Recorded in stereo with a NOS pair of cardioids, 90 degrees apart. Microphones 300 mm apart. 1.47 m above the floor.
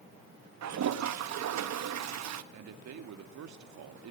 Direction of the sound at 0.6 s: 65° right.